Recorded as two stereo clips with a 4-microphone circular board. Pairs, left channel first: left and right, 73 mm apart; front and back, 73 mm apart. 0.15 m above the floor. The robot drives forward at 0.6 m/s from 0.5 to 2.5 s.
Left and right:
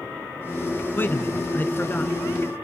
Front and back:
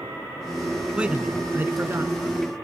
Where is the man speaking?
115° left, 1.4 m; by 2.1 s 145° left, 1.7 m.